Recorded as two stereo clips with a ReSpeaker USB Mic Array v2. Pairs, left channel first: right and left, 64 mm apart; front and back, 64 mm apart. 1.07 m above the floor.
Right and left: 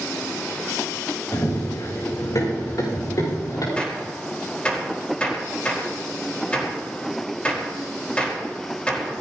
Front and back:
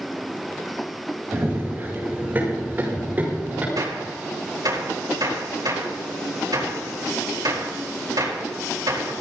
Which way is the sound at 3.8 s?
165° right.